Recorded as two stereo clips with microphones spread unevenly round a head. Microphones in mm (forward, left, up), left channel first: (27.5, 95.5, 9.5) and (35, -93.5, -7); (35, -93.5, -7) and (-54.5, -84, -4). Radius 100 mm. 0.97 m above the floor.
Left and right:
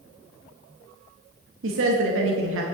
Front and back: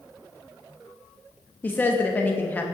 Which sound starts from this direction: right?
A woman speaking, at 1.6 s.